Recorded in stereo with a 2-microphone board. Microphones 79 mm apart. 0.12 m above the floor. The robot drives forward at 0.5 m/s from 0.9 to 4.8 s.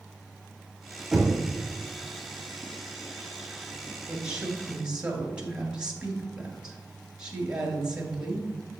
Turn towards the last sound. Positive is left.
turn(degrees=-10)  # may be behind; listen again after turning